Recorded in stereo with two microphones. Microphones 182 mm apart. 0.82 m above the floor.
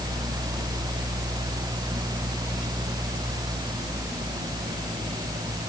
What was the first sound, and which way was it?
Only background noise.